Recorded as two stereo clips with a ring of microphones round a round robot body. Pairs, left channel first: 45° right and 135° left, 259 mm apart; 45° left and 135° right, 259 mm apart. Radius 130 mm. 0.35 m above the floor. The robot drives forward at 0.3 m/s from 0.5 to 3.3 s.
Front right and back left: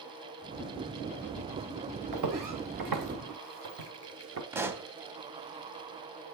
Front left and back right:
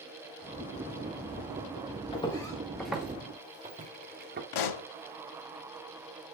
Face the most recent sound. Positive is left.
turn(degrees=55)